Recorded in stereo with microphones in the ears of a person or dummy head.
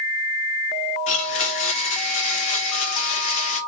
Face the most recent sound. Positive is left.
turn(degrees=40)  # may be behind; listen again after turning